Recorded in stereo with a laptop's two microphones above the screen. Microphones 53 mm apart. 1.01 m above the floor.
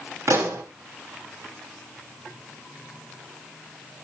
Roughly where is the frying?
I don't hear frying.